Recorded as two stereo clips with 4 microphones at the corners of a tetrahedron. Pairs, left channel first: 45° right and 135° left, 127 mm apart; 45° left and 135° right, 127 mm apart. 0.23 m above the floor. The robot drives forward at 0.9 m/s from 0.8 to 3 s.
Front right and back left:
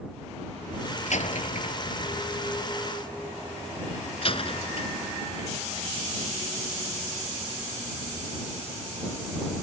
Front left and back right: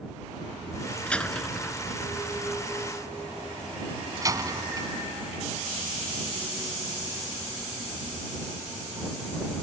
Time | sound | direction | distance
1.1 | a door slam | 35° right | ?